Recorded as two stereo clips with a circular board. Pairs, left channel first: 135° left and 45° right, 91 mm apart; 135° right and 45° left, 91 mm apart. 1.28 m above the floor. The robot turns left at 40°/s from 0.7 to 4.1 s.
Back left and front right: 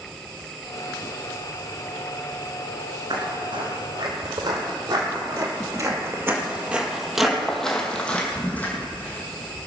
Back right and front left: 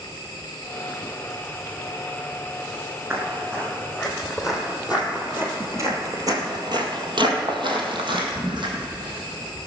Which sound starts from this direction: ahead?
Footsteps, at 3.1 s.